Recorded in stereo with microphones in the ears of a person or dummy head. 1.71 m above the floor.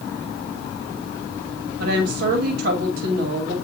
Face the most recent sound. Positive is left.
turn(degrees=-60)  # may be behind; listen again after turning